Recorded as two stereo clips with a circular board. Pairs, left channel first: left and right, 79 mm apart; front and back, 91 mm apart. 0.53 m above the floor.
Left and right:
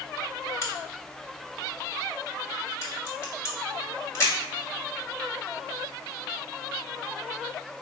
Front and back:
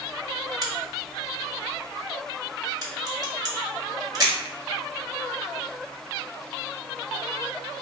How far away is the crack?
About 1.6 m.